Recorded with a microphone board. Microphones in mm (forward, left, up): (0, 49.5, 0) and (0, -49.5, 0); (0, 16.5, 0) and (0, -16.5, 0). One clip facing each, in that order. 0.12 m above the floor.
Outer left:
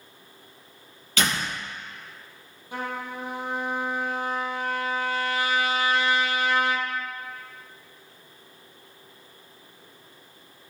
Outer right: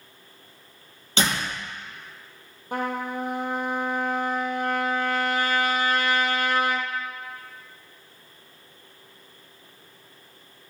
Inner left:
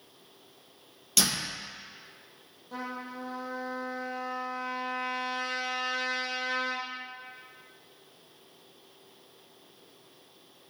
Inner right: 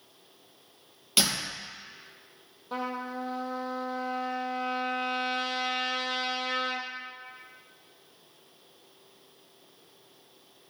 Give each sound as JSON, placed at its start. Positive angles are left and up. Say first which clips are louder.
{"t": 1.2, "sound": "a door slam", "louder": "outer right 1 dB, inner right 1 dB", "side_deg": -30, "distance_m": 3.0}
{"t": 2.7, "sound": "a trumpet", "louder": "outer right 5 dB, inner right 4 dB", "side_deg": -50, "distance_m": 1.4}